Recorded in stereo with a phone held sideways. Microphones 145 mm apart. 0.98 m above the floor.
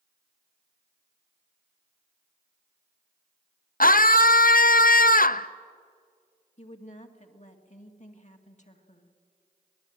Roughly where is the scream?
Left.